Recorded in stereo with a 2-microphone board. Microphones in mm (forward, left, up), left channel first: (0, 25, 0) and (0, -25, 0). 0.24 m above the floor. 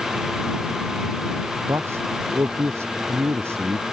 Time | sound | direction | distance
1.7 | a man speaking | 60° right (ahead or behind) | ?